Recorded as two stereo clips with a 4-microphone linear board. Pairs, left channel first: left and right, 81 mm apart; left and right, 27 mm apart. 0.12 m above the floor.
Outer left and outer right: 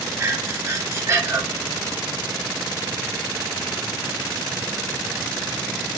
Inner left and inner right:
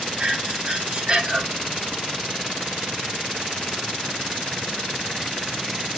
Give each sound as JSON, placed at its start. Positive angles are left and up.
{"t": 0.2, "sound": "breathing", "side_deg": -35, "distance_m": 2.0}